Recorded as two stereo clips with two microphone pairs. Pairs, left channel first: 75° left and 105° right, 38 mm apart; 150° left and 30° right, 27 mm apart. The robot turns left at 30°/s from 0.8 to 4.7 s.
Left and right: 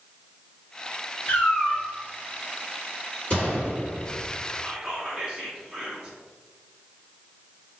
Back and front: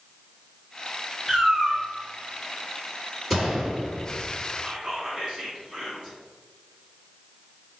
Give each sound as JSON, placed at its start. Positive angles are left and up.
{"t": 1.3, "sound": "a cat meowing", "azimuth_deg": 50, "distance_m": 1.0}
{"t": 3.3, "sound": "a gunshot", "azimuth_deg": 70, "distance_m": 1.8}
{"t": 4.6, "sound": "whispering", "azimuth_deg": -65, "distance_m": 1.5}